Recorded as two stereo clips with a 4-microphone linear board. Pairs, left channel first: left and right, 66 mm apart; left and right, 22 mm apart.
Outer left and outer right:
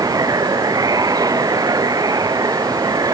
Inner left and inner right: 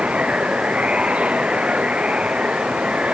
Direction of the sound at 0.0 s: 65° right (ahead or behind).